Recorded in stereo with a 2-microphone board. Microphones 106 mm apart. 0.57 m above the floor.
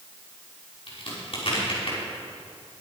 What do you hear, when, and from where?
0.9 s a crack: 60° left (ahead or behind), 5.5 m